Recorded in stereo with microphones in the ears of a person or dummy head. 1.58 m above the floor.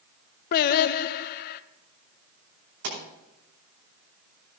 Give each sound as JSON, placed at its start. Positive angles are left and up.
{"t": 0.5, "sound": "singing", "side_deg": 55, "distance_m": 0.5}
{"t": 2.8, "sound": "a pop", "side_deg": -65, "distance_m": 5.0}